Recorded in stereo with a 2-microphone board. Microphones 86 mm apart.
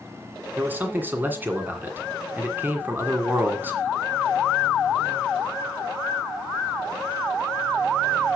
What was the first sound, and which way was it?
A man speaking, 20° right (ahead or behind).